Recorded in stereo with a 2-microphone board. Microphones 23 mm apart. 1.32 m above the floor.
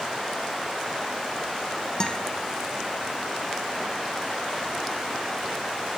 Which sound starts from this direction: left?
A guitar, at 2.0 s.